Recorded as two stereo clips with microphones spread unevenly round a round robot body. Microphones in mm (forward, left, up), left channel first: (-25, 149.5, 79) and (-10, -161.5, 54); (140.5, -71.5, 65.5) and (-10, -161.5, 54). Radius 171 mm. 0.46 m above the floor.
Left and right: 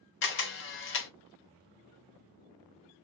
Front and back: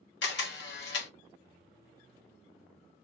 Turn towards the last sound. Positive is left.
turn(degrees=40)